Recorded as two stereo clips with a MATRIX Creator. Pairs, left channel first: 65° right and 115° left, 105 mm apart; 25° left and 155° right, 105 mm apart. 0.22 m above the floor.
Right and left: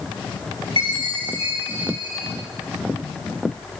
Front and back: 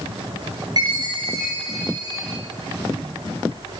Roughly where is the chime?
Behind left.